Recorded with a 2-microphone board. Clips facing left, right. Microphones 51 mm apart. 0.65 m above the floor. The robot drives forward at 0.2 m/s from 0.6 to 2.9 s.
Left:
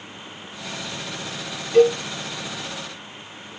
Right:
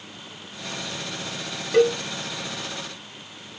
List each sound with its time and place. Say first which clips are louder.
1.7 s a cowbell: left 3 dB; 70° right (ahead or behind), 2 m